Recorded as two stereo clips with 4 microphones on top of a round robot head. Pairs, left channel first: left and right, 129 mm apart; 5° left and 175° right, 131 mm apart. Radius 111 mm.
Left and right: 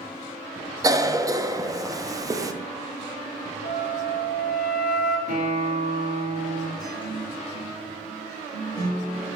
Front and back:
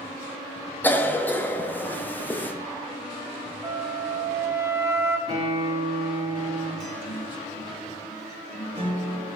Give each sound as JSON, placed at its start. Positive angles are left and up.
{"t": 0.8, "sound": "a cough", "azimuth_deg": -60, "distance_m": 0.9}
{"t": 3.6, "sound": "a flute", "azimuth_deg": 115, "distance_m": 0.9}
{"t": 5.3, "sound": "a guitar", "azimuth_deg": -120, "distance_m": 2.5}
{"t": 6.8, "sound": "a guitar", "azimuth_deg": 150, "distance_m": 1.9}